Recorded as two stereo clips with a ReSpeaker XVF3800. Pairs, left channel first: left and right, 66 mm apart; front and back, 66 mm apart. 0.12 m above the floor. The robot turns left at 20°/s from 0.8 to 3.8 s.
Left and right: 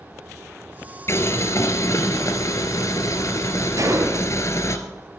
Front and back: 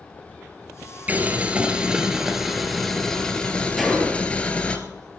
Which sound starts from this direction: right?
A gunshot, at 3.8 s.